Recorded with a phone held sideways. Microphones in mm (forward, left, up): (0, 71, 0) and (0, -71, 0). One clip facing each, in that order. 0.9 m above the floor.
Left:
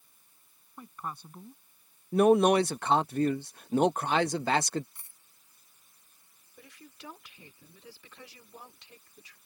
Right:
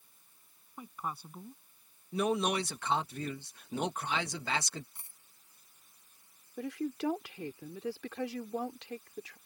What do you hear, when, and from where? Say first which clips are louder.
0.8 s a woman speaking: even; 10° right (ahead or behind)
2.1 s a man speaking: left 10 dB; 55° left (ahead or behind)
5.0 s a dropped coin: right 1 dB; 25° right (ahead or behind)
6.6 s a woman speaking: right 16 dB; 80° right